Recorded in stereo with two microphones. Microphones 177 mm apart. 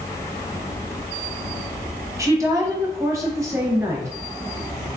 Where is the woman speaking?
20° right (ahead or behind), 0.9 m.